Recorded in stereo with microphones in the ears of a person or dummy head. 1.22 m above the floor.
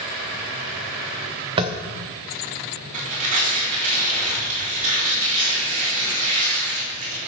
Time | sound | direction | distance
1.6 | tapping | 20° right (ahead or behind) | 0.7 m
2.9 | tearing paper | 40° right (ahead or behind) | 4 m